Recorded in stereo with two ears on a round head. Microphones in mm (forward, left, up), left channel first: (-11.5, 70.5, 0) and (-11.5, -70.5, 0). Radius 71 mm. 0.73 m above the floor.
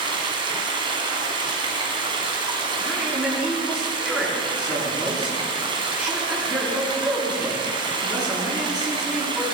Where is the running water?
35° right (ahead or behind), 2 m.